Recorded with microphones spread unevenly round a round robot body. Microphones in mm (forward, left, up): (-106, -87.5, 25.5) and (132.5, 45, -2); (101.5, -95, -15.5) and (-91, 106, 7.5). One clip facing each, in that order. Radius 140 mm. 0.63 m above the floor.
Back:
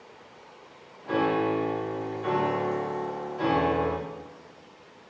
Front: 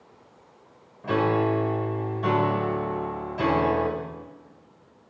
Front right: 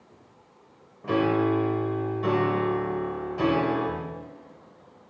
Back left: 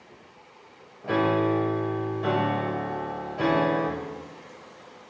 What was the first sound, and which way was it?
A piano, 35° left.